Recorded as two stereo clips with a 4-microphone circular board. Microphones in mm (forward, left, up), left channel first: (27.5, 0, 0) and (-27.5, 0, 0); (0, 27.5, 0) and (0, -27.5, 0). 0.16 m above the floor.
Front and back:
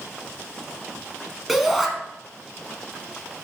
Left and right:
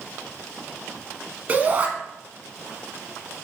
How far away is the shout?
About 1.3 m.